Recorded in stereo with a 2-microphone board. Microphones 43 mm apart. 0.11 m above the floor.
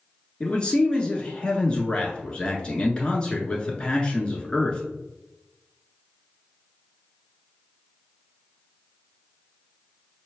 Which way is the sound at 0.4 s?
25° left (ahead or behind).